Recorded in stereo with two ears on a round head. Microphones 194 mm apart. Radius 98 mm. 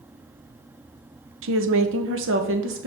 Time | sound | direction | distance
1.4 | a woman speaking | 65° right (ahead or behind) | 1.0 m